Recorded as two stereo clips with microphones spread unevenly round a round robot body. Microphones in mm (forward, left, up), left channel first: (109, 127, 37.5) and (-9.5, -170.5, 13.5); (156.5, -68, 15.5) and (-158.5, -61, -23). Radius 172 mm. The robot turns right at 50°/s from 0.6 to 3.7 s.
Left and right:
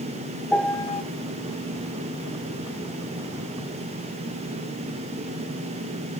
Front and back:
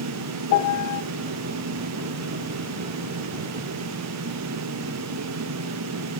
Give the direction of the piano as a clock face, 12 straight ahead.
1 o'clock.